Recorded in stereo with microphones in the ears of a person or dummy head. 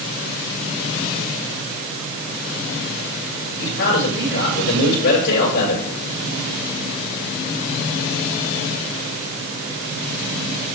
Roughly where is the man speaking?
Left.